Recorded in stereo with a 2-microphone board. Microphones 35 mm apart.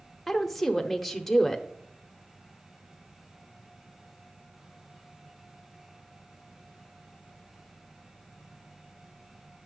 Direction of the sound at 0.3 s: 5° left (ahead or behind).